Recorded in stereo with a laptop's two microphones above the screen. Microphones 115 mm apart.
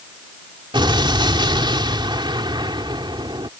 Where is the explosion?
40° right (ahead or behind).